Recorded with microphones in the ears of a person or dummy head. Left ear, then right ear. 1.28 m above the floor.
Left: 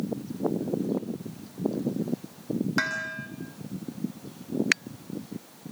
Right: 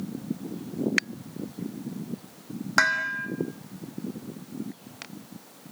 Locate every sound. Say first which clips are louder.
2.8 s dishes clattering: right 8 dB; 35° right (ahead or behind), 2.5 m